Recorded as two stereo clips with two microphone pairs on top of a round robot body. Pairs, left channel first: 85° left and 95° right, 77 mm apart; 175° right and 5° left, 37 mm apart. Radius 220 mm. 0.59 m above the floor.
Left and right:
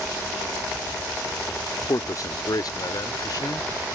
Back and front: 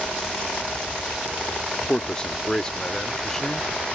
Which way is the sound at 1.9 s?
120° left.